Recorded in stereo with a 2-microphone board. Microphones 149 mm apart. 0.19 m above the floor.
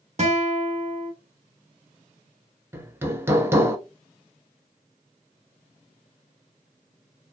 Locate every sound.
0.2 s a guitar: 45° right (ahead or behind), 0.7 m
2.7 s hammering: 15° right (ahead or behind), 0.6 m